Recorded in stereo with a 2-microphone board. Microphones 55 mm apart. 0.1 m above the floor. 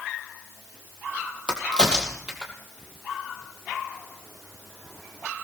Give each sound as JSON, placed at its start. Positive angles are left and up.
{"t": 1.5, "sound": "a crack", "side_deg": -15, "distance_m": 2.5}